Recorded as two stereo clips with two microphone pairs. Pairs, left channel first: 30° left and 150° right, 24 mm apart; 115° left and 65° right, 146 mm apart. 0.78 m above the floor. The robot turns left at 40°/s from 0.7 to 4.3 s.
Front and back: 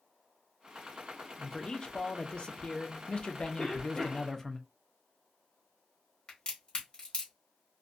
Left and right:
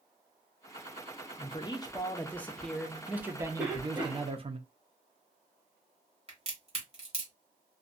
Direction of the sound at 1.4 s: 85° left.